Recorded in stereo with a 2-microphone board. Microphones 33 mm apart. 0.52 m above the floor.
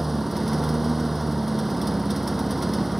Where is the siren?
I don't hear a siren.